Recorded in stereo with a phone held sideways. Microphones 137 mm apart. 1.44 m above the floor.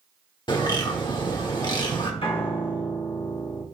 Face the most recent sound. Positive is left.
turn(degrees=40)  # may be behind; listen again after turning